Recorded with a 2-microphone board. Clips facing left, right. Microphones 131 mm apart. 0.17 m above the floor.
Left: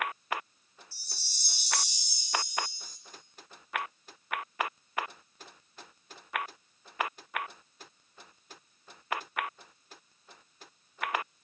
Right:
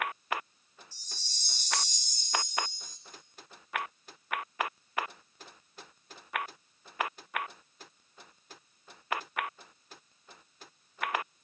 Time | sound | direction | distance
0.9 | a chime | 10° left (ahead or behind) | 0.6 m